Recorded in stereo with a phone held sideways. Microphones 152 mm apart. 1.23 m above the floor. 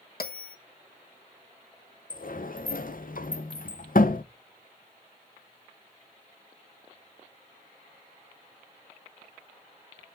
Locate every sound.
0.2 s a bell: 85° left, 1.2 m
2.1 s a sliding door: 65° left (ahead or behind), 0.6 m